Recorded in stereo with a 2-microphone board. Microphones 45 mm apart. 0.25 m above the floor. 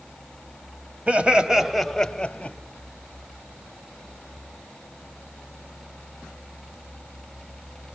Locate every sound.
1.1 s laughter: 30° right (ahead or behind), 1.3 m; by 2.6 s 30° left (ahead or behind), 1.4 m